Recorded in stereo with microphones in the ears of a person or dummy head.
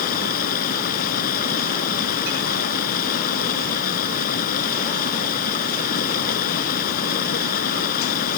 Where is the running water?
55° left (ahead or behind).